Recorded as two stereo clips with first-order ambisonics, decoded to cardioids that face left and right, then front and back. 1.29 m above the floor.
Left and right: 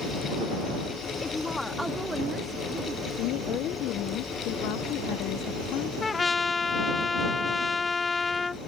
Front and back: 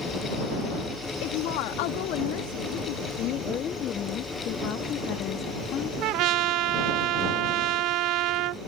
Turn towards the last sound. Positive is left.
turn(degrees=165)